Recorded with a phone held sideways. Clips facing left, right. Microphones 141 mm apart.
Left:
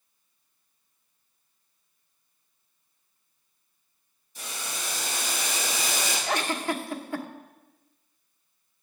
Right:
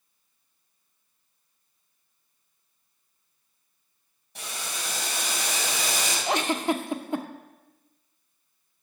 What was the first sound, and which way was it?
Boiling, 70° right (ahead or behind).